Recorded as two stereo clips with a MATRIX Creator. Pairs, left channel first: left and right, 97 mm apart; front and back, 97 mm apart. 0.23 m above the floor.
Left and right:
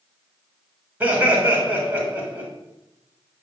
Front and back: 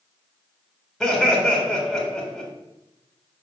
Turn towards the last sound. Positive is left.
turn(degrees=-85)